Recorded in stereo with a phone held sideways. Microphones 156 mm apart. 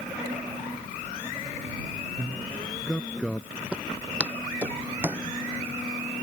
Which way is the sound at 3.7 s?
5° right (ahead or behind).